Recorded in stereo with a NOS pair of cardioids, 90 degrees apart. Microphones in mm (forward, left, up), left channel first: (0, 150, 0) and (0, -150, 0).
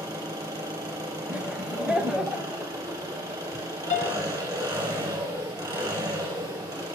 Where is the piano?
25° left, 0.7 m.